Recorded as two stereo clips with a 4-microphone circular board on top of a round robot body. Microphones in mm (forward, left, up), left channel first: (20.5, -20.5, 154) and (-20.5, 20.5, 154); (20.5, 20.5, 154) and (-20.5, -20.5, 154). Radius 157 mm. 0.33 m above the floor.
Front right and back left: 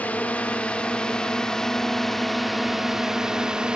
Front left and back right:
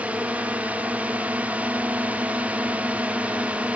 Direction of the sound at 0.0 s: 90° right.